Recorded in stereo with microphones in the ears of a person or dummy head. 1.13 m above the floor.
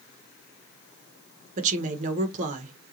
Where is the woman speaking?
45° right (ahead or behind), 1.0 m.